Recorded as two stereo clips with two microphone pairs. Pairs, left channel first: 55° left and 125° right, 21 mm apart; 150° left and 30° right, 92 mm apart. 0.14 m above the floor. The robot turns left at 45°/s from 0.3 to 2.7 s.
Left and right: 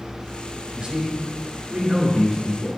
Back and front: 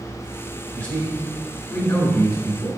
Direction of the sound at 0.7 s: 135° right.